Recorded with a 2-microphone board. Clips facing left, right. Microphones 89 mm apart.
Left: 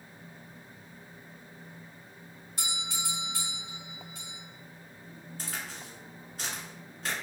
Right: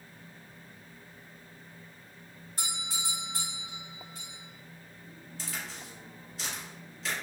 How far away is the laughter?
No laughter in this recording.